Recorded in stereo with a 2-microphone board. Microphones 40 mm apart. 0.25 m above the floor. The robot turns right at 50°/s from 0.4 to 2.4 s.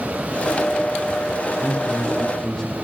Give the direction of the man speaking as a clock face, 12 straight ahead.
12 o'clock.